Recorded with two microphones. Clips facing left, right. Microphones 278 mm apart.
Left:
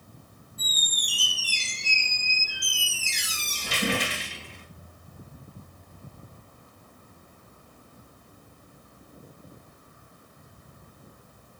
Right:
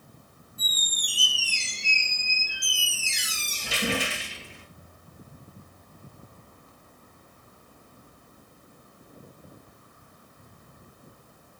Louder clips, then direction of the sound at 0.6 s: Left 1 dB; 5° right (ahead or behind).